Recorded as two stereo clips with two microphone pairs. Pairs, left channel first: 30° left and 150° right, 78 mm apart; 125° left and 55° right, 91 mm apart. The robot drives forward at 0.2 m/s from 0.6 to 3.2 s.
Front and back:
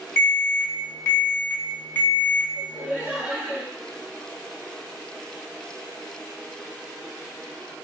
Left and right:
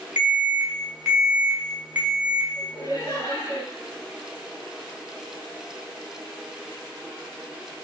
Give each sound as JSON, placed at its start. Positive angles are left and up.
{"t": 0.2, "sound": "an alarm", "azimuth_deg": 0, "distance_m": 1.1}
{"t": 2.5, "sound": "laughter", "azimuth_deg": 130, "distance_m": 1.4}